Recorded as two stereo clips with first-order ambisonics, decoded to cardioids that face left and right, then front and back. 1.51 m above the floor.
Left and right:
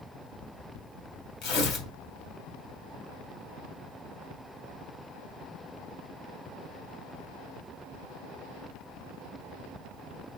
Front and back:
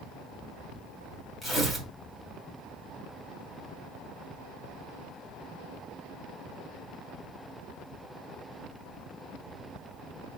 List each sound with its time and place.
1.4 s tearing paper: 75° left, 2.5 m